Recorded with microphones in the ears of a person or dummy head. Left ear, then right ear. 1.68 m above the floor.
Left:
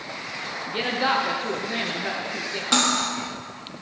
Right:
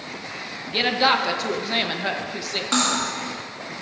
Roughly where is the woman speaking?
Right.